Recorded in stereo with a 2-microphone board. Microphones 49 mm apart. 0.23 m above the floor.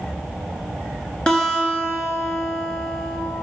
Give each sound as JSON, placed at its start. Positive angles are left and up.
{"t": 1.3, "sound": "a guitar", "side_deg": 20, "distance_m": 1.9}